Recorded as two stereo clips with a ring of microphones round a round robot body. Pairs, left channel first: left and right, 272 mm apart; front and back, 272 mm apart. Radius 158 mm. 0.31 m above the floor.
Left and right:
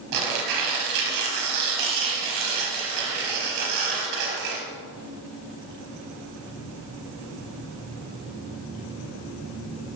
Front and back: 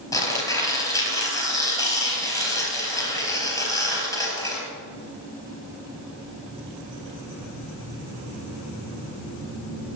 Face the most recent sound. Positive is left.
turn(degrees=-75)